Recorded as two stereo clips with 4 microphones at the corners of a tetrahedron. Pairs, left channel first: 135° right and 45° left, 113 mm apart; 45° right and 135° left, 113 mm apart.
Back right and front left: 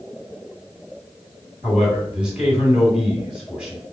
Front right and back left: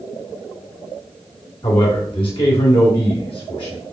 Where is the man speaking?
35° right, 2.5 m.